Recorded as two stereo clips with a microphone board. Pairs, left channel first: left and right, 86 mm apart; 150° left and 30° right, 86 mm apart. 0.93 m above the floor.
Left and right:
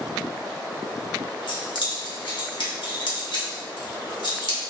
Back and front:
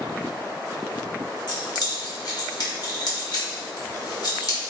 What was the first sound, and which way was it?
Keys jangling, 110° left.